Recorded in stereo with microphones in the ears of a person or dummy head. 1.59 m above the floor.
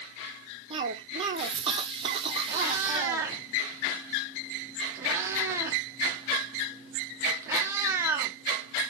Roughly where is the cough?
Right.